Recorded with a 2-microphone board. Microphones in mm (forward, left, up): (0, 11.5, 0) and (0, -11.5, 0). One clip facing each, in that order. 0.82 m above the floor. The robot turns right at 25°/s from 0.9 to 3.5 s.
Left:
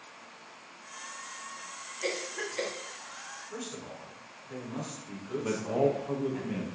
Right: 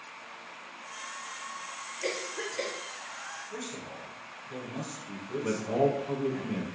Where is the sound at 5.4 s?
5° left (ahead or behind), 0.6 m.